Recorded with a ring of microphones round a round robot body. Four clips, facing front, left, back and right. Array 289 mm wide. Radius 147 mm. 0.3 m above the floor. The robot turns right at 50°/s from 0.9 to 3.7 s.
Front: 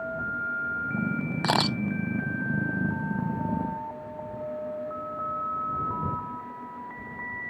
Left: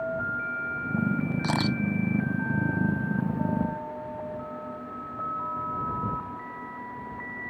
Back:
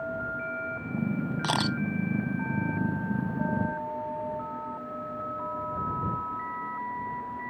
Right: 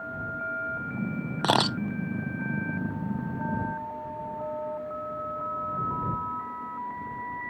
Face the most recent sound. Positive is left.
turn(degrees=40)